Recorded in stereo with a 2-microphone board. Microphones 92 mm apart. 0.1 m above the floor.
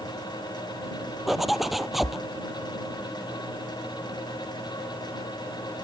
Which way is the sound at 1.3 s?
Centre (ahead or behind).